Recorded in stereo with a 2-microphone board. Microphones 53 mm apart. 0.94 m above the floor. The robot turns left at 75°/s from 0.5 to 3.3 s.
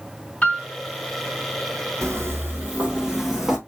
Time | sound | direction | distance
0.4 | a piano | 25° left (ahead or behind) | 1.9 m
2.0 | footsteps | 60° right (ahead or behind) | 1.8 m